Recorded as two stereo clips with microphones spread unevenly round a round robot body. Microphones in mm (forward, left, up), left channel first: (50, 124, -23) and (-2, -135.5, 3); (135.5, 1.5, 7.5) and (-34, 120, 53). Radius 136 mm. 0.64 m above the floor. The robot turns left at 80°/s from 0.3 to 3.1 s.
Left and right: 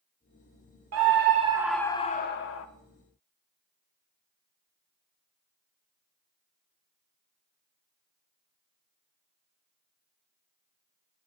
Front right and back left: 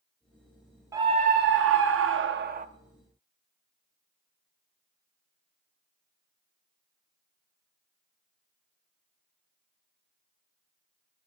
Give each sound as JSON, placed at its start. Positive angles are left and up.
{"t": 0.9, "sound": "a scream", "azimuth_deg": -130, "distance_m": 0.8}